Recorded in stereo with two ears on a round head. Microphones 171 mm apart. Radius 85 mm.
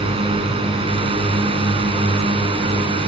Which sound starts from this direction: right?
A drone, at 0.0 s.